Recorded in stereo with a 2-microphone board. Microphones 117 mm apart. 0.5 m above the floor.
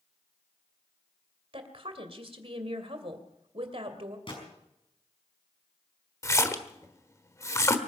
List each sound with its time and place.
1.5 s a woman speaking: 55° right (ahead or behind), 2.5 m
4.3 s a gunshot: 50° left (ahead or behind), 5 m
6.2 s a splash: 25° left (ahead or behind), 1.3 m